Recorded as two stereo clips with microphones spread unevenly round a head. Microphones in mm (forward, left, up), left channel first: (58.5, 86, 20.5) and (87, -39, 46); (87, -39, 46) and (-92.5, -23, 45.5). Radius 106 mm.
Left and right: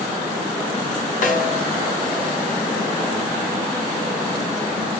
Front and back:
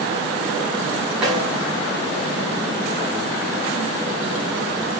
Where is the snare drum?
85° left, 6.5 m.